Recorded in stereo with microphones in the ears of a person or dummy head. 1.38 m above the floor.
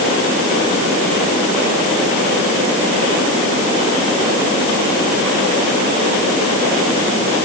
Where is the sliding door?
No sliding door in this recording.